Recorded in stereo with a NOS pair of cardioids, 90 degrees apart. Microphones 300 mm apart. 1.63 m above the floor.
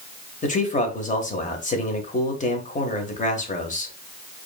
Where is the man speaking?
25° left, 1.5 m.